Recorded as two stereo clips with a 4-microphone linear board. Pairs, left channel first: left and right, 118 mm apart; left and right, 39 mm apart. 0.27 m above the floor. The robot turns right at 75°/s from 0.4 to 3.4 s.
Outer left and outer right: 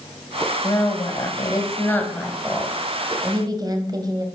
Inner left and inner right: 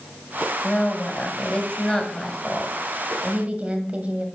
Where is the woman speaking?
55° left, 1.7 m; by 4.2 s 100° right, 1.7 m.